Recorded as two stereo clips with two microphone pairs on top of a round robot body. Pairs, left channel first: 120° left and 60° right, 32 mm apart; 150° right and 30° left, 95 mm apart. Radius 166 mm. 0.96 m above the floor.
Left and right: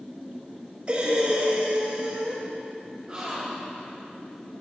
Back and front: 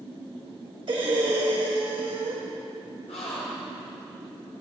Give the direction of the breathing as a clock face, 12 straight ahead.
12 o'clock.